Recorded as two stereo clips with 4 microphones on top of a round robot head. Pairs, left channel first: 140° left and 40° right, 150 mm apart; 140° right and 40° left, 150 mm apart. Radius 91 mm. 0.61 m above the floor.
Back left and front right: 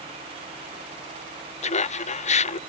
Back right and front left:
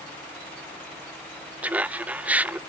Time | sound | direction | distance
1.6 | laughter | 120° left | ?